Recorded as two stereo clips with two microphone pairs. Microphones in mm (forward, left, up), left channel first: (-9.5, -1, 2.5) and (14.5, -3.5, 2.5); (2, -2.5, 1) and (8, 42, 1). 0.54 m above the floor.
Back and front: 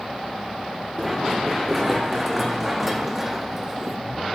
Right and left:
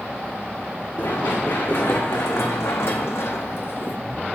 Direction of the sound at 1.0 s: 90° right.